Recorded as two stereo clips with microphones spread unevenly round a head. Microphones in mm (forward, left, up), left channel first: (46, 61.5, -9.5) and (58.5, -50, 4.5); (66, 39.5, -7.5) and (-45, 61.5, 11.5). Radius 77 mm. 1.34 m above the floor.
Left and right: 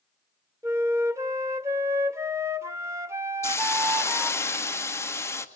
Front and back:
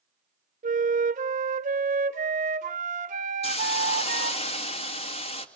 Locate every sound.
0.6 s a flute: 155° right, 0.6 m
3.4 s a hiss: 25° left, 2 m